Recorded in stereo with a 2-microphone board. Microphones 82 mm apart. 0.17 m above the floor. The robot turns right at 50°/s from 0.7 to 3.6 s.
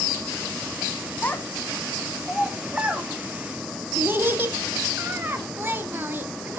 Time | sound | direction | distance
1.2 | a child speaking | 20° left (ahead or behind) | 1.0 m